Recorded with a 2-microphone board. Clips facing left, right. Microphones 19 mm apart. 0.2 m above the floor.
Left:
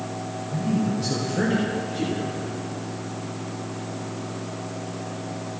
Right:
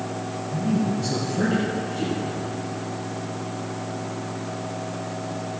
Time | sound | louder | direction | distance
0.5 | a man speaking | right 1 dB | 65° left (ahead or behind) | 3.5 m